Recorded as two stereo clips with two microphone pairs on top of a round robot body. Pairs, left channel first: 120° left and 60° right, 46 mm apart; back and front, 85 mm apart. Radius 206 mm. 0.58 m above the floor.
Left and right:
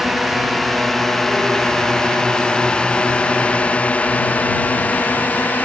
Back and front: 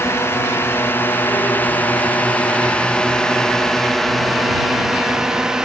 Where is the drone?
135° right; by 5.7 s 75° left.